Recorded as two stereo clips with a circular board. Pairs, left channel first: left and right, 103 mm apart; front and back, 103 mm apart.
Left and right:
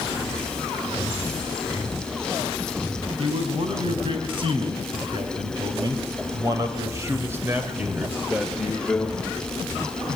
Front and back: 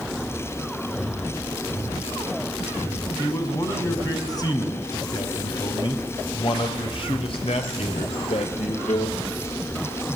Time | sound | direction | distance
3.2 | a man speaking | 60° right | 5.5 m